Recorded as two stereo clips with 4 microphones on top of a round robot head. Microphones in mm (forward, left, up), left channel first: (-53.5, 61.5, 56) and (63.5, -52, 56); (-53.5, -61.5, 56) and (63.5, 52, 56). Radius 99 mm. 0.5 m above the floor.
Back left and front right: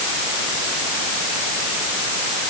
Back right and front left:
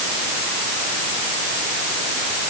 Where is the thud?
No thud in this recording.